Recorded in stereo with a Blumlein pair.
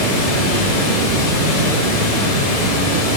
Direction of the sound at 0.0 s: 30° left.